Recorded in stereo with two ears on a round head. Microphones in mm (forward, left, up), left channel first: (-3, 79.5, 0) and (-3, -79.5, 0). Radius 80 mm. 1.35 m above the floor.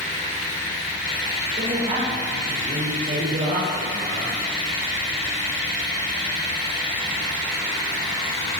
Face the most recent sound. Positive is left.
turn(degrees=-45)  # may be behind; listen again after turning